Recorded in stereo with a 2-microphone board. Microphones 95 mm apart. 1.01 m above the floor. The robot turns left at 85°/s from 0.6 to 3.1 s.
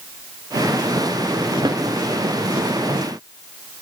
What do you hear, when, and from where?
1.6 s a snare drum: 45° right (ahead or behind), 0.7 m; by 1.8 s 35° right (ahead or behind), 0.7 m